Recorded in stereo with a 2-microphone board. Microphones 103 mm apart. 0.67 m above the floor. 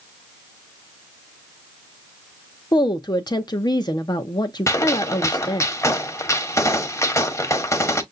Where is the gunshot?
30° left (ahead or behind), 0.9 m.